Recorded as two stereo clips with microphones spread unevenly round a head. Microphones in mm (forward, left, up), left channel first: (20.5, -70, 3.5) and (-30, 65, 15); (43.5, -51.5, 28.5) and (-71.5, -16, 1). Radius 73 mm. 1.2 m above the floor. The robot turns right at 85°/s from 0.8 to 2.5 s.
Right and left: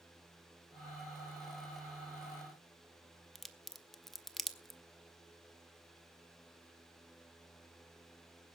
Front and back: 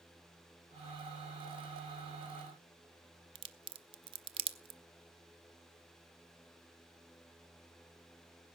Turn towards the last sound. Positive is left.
turn(degrees=-165)